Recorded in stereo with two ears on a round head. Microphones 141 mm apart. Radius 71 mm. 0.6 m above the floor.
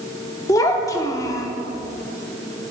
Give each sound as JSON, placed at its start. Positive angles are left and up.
{"t": 0.5, "sound": "a child speaking", "side_deg": 20, "distance_m": 0.8}